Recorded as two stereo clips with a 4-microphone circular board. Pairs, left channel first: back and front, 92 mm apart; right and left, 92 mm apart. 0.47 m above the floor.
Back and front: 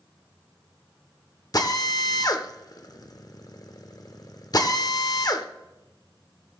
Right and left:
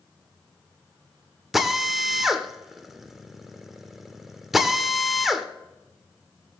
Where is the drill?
175° left, 0.9 m.